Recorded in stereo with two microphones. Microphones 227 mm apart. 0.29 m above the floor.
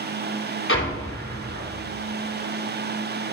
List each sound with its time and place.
0.7 s an explosion: 60° left (ahead or behind), 2.5 m